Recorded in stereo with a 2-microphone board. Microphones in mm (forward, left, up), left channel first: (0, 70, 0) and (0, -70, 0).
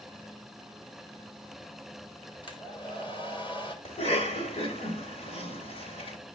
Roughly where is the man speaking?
No man speaking in this recording.